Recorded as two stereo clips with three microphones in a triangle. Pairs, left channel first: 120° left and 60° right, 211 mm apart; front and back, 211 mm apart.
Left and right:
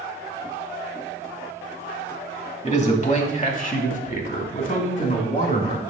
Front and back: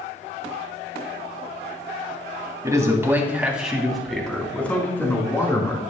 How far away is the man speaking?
About 1.7 m.